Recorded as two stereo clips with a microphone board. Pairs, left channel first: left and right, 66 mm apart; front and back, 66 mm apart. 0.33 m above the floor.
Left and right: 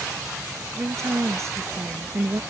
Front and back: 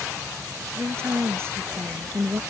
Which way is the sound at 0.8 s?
130° right.